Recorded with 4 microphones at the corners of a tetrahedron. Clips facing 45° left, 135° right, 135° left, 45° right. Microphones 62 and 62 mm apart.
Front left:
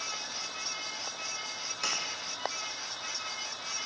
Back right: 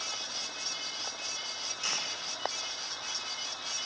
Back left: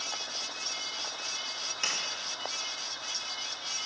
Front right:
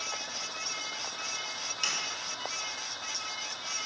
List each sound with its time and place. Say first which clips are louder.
1.8 s a sliding door: front left 3 dB, even; 70° left, 2.5 m